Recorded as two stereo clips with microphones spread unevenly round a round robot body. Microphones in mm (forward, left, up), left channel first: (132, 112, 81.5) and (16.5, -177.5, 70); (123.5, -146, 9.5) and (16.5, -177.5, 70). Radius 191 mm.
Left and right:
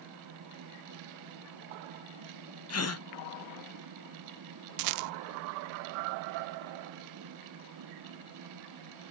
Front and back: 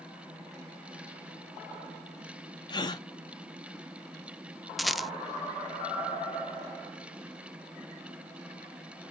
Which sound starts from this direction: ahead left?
A gasp, at 2.7 s.